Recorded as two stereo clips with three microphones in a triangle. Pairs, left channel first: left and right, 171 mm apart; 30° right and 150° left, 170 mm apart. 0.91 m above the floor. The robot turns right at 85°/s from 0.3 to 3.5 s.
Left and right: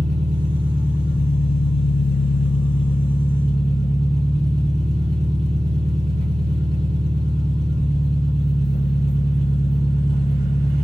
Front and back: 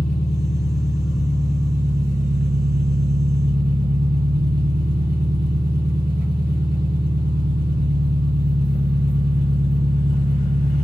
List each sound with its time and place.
0.0 s an engine running: 40° right, 3 m; by 10.8 s 130° right, 3 m